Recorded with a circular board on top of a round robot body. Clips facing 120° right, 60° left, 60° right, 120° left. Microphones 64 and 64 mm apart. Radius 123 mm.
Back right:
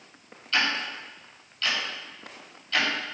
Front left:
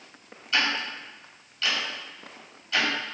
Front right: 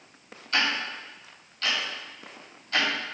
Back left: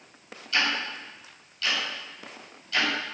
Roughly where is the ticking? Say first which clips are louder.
Even, even; ahead.